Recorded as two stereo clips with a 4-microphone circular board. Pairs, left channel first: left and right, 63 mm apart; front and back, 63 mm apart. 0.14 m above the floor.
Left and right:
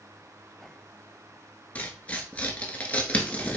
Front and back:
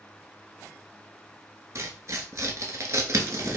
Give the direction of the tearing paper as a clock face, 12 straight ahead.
7 o'clock.